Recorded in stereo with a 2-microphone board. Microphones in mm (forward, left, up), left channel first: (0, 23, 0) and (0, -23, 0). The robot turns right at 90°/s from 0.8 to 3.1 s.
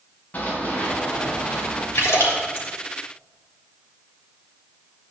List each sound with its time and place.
0.3 s running footsteps: 35° left (ahead or behind), 4.5 m; by 1.9 s 60° left (ahead or behind), 5.5 m
1.9 s a splash: 65° left (ahead or behind), 3 m; by 2.7 s 40° left (ahead or behind), 3 m